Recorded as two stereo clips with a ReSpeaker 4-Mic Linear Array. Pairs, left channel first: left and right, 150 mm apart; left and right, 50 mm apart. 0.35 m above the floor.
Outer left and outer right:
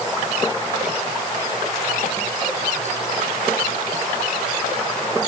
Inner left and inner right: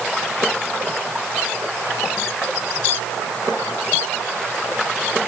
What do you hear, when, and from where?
Only background noise.